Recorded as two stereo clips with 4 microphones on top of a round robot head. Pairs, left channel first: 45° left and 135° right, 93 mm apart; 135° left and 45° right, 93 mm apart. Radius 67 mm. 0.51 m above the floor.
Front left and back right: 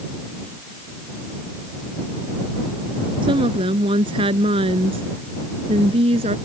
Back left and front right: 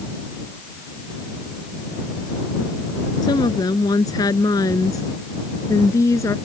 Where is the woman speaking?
175° right; by 6.4 s 165° right.